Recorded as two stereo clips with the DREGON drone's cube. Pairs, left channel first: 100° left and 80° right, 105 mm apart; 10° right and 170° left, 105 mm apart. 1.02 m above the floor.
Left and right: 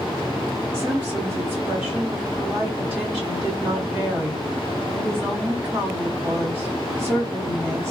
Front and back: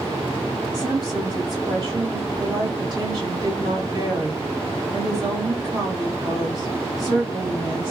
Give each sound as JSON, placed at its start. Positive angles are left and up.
{"t": 0.7, "sound": "a woman speaking", "azimuth_deg": -150, "distance_m": 1.9}